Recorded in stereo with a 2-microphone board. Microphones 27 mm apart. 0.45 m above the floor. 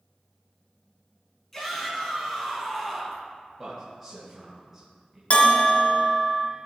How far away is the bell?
About 1.4 m.